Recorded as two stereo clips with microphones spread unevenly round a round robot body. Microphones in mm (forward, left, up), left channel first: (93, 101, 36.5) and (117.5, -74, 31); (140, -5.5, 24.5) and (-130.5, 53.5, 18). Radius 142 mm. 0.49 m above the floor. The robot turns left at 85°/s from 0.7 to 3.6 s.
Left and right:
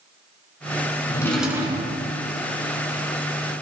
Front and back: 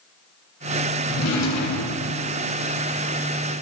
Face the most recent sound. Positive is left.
turn(degrees=180)